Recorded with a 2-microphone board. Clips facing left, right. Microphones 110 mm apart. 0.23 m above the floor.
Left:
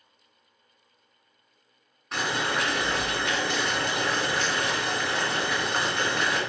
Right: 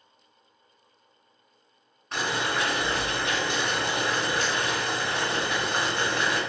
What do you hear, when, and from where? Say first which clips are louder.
2.1 s boiling: even; centre (ahead or behind), 1.6 m